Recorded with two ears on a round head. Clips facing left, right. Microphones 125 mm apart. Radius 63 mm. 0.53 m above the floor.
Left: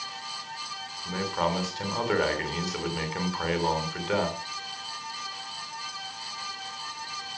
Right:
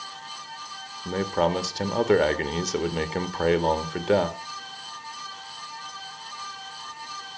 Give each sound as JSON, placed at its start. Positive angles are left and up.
{"t": 1.1, "sound": "a man speaking", "side_deg": -50, "distance_m": 2.0}